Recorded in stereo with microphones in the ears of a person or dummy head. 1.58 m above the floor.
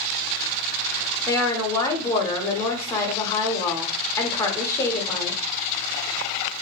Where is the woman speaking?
20° left (ahead or behind), 0.8 m.